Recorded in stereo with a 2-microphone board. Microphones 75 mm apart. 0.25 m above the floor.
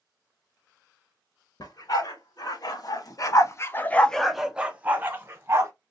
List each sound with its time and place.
1.6 s a dog barking: 55° left (ahead or behind), 1.3 m; by 5.7 s 35° right (ahead or behind), 1.1 m